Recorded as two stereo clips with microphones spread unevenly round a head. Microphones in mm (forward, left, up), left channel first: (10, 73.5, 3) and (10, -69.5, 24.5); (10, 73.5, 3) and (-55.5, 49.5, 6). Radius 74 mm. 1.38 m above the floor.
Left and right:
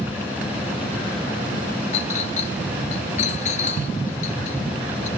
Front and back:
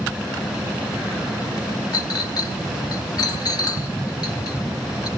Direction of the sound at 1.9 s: 45° left.